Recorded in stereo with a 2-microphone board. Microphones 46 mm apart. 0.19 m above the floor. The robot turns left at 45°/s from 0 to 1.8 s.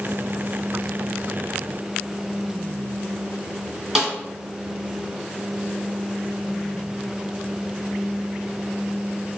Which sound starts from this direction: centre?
A snare drum, at 4.0 s.